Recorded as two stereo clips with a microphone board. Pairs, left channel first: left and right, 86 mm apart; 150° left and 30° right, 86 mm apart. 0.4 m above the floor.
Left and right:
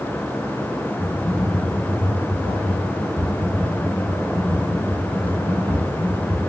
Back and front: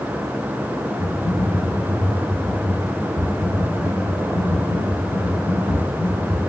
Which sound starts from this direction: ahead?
Typing on a keyboard, at 1.0 s.